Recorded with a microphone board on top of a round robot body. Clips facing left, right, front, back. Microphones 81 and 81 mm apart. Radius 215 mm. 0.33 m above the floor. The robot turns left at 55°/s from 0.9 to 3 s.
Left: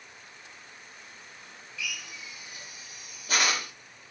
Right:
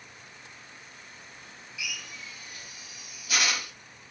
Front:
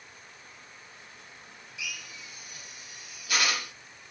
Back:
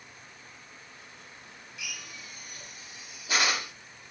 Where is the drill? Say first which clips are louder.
Left 1 dB, front 2 dB; 165° right, 1.1 m; by 3.7 s 125° left, 1.1 m.